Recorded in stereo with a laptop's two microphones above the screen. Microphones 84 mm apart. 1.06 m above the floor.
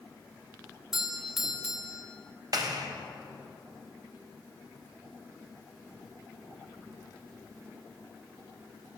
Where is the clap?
45° right (ahead or behind), 1.0 m.